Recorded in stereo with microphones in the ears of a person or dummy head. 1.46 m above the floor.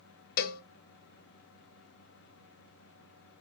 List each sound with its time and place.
0.4 s a cowbell: 50° left (ahead or behind), 0.6 m